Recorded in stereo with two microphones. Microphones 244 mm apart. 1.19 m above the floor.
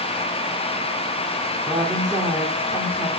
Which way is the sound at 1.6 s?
10° right (ahead or behind).